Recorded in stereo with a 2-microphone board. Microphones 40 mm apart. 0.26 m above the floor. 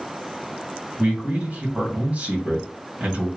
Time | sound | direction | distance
1.0 | a man speaking | 35° right (ahead or behind) | 2.5 m